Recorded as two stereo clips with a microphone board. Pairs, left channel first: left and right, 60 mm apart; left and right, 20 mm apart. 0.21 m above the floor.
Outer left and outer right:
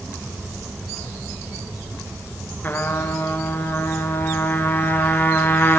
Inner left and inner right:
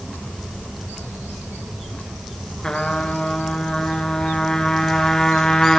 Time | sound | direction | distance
2.6 | a trumpet | 40° left (ahead or behind) | 1.3 m